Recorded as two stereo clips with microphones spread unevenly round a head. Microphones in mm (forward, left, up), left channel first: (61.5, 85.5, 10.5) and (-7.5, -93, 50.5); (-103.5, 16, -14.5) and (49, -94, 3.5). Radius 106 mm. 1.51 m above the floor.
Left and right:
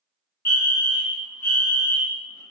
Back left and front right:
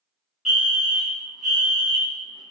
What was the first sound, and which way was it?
A fire alarm, 65° left.